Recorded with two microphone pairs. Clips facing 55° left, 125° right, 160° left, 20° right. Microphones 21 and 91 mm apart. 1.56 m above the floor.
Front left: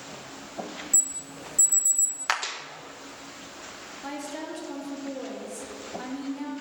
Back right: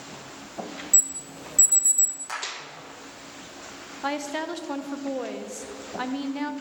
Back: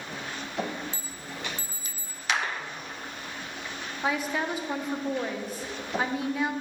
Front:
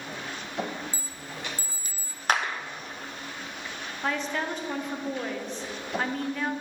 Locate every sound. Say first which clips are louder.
0.9 s an alarm: back right 3 dB, even; 140° right, 0.7 m
2.3 s a clap: front left 7 dB, front 3 dB; 20° left, 0.8 m
4.0 s a woman speaking: back right 7 dB, back 1 dB; 120° right, 0.5 m